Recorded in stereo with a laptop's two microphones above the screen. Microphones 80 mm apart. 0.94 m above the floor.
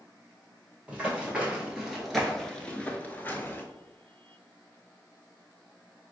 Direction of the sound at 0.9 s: 15° right (ahead or behind).